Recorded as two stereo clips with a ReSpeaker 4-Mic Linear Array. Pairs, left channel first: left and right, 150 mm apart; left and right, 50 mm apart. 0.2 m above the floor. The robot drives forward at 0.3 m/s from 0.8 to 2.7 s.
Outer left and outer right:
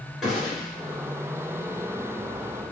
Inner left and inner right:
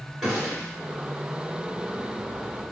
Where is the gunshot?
Centre (ahead or behind), 1.9 m.